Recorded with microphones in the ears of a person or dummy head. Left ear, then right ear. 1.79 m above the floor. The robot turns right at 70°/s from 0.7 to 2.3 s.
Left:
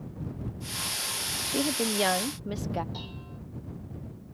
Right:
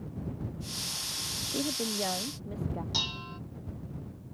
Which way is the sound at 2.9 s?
55° right (ahead or behind).